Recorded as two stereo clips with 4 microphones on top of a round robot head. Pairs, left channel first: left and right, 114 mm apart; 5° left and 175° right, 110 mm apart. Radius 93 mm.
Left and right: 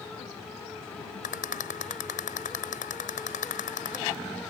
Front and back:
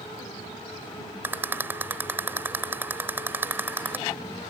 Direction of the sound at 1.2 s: 110° left.